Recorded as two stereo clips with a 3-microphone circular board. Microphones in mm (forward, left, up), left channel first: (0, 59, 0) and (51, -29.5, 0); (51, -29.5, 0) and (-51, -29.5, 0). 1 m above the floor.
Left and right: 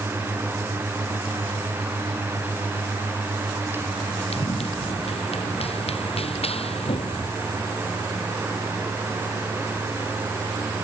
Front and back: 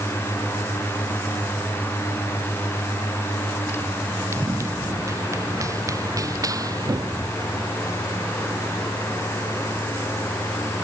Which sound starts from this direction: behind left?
Running footsteps, at 4.3 s.